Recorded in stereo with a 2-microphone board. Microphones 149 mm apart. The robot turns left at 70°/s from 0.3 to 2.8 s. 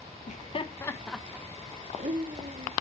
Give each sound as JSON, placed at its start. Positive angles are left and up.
{"t": 0.3, "sound": "laughter", "side_deg": 55, "distance_m": 0.7}